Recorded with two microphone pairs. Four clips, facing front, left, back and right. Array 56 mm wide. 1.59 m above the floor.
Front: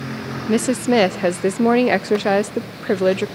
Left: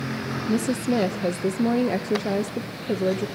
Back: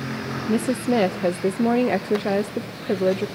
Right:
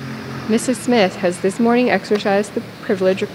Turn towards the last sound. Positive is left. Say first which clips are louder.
# right 8 dB, front 4 dB
turn(degrees=-45)